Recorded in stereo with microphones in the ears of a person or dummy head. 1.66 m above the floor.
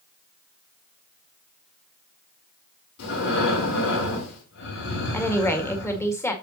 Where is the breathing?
65° left (ahead or behind), 6.5 m.